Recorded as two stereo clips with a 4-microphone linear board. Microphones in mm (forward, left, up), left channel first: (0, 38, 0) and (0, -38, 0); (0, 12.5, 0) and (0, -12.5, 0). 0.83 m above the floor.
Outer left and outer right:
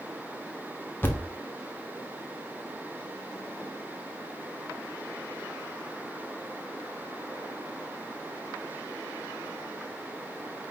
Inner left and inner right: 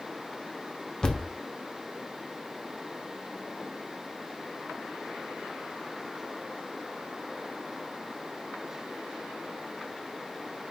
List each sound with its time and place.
1.0 s a thud: 30° left (ahead or behind), 0.6 m